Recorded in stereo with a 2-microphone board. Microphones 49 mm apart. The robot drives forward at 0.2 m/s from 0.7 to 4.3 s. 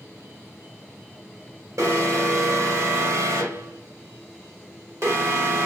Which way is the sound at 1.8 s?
80° right.